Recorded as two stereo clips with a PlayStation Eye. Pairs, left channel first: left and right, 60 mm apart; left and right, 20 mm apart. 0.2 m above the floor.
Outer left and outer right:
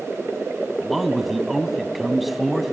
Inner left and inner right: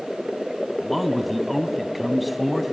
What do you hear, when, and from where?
0.8 s a man speaking: 5° right (ahead or behind), 1.3 m